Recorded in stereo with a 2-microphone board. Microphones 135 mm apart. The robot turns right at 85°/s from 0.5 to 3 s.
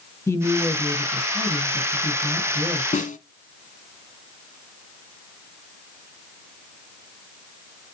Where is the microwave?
No microwave in this recording.